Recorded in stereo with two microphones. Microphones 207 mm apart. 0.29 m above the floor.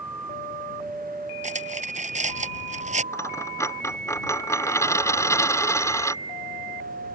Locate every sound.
1.4 s cutlery clinking: 35° right (ahead or behind)
3.1 s a dropped coin: 15° left (ahead or behind)